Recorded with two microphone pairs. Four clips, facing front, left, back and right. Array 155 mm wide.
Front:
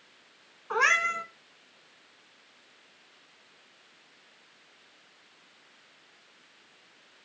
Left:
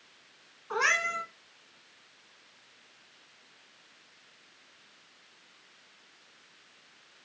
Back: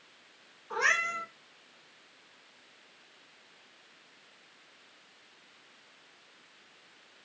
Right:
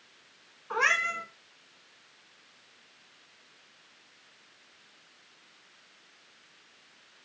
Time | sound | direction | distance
0.7 | a cat meowing | 15° right | 1.0 m